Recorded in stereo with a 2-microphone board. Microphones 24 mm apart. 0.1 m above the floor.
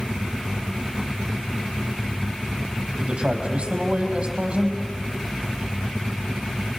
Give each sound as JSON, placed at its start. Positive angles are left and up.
{"t": 3.0, "sound": "a man speaking", "side_deg": -45, "distance_m": 4.0}